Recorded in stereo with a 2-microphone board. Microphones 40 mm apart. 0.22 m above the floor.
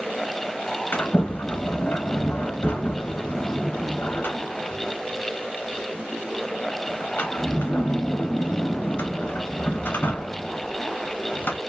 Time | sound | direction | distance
0.9 | a sliding door | 60° left (ahead or behind) | 1.1 m